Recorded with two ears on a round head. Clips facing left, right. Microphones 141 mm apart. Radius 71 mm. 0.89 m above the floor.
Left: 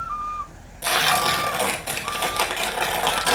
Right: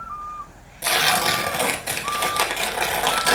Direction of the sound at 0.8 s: 10° right (ahead or behind).